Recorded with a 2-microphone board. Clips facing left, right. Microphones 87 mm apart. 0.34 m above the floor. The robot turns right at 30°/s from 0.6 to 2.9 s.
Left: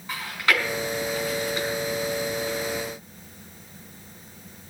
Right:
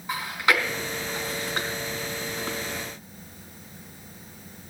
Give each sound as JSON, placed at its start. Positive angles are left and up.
{"t": 0.1, "sound": "chewing", "side_deg": -15, "distance_m": 4.0}